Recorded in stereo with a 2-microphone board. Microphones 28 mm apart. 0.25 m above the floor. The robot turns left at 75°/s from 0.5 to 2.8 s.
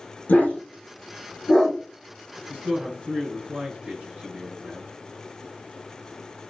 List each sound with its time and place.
0.3 s a dog barking: 85° left, 3 m; by 1.8 s centre (ahead or behind), 3 m
2.5 s a man speaking: 25° right (ahead or behind), 2.5 m; by 4.9 s 45° right (ahead or behind), 2.5 m